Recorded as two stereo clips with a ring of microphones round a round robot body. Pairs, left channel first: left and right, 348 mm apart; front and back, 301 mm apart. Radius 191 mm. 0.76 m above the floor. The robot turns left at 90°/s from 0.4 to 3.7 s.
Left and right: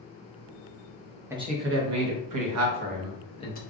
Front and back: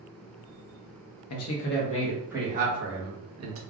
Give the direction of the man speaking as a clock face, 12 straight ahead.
12 o'clock.